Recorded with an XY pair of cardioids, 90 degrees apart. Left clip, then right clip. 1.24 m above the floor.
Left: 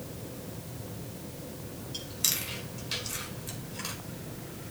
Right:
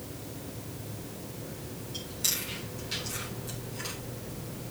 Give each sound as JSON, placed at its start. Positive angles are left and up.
{"t": 1.9, "sound": "chewing", "azimuth_deg": 50, "distance_m": 4.5}